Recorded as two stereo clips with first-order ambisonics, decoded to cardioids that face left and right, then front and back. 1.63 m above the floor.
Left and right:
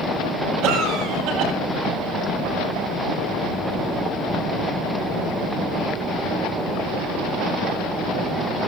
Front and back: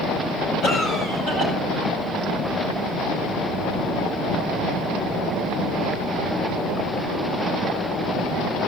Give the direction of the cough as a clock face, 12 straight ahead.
2 o'clock.